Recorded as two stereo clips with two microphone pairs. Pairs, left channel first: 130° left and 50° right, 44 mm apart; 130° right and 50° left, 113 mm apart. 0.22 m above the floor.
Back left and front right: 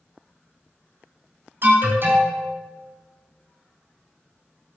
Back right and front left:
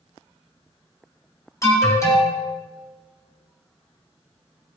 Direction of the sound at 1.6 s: 70° right.